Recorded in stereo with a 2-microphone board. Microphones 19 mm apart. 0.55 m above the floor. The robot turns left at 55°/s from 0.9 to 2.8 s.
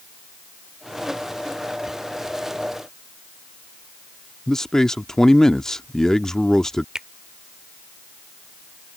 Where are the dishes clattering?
I don't hear dishes clattering.